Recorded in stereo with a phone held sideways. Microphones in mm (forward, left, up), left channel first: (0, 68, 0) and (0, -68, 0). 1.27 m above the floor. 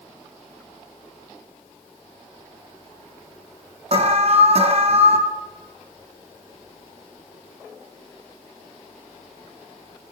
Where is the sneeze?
I don't hear a sneeze.